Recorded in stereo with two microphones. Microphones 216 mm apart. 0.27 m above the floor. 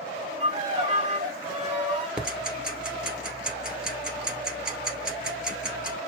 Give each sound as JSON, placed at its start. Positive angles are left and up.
{"t": 0.4, "sound": "a violin", "side_deg": -35, "distance_m": 1.7}
{"t": 2.2, "sound": "ticking", "side_deg": -5, "distance_m": 1.4}